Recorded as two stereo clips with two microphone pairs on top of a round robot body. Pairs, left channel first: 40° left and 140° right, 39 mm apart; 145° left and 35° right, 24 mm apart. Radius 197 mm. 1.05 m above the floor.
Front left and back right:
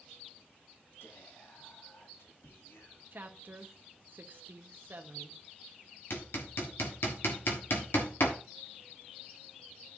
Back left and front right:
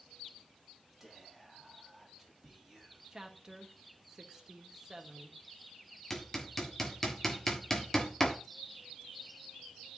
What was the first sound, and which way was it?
Whispering, 45° left.